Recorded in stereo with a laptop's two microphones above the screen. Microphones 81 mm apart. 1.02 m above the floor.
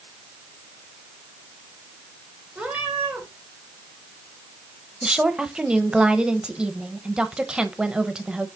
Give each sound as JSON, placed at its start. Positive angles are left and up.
{"t": 2.5, "sound": "a cat meowing", "side_deg": -15, "distance_m": 2.0}
{"t": 5.0, "sound": "a woman speaking", "side_deg": -10, "distance_m": 0.9}